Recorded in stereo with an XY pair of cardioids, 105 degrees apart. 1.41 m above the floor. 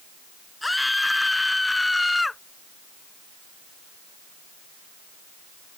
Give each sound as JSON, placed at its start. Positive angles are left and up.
{"t": 0.6, "sound": "a scream", "azimuth_deg": 10}